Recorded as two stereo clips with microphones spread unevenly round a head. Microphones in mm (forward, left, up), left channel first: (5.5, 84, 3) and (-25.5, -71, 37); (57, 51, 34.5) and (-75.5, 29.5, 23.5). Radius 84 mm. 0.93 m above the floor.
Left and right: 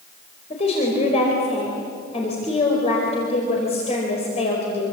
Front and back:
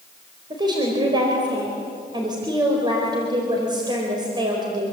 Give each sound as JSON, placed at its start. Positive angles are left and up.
{"t": 0.5, "sound": "a woman speaking", "azimuth_deg": 130, "distance_m": 4.5}